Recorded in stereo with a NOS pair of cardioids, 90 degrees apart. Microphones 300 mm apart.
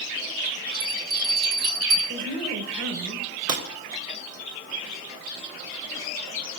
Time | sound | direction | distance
0.7 | a bell | 60° right | 5 m
2.1 | a woman speaking | 45° right | 6 m
3.5 | breaking glass | 60° right | 3.5 m